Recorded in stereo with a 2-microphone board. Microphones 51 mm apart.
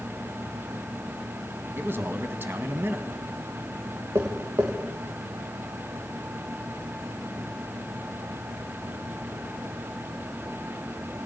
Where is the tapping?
70° right (ahead or behind), 6 m.